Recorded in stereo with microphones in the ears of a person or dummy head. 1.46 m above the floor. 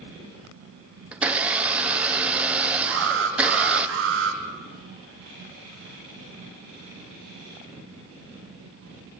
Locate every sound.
1.1 s a blender: 10° right (ahead or behind), 0.6 m
2.9 s an alarm: 75° right (ahead or behind), 3 m